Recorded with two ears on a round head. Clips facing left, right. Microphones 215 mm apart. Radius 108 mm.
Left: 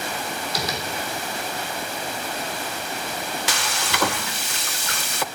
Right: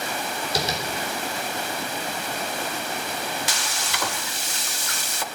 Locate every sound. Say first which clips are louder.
0.6 s tapping: right 3 dB; 25° right (ahead or behind), 2.5 m
3.5 s frying: left 4 dB; 50° left (ahead or behind), 0.5 m